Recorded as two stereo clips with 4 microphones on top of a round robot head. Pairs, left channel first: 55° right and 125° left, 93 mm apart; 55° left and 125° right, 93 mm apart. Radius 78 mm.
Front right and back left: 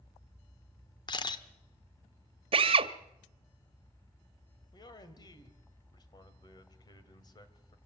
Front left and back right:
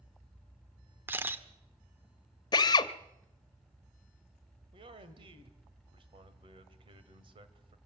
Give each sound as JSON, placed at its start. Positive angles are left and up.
{"t": 1.1, "sound": "a camera shutter", "azimuth_deg": -65, "distance_m": 1.4}
{"t": 2.5, "sound": "a drill", "azimuth_deg": 100, "distance_m": 0.8}
{"t": 4.7, "sound": "a man speaking", "azimuth_deg": -100, "distance_m": 2.0}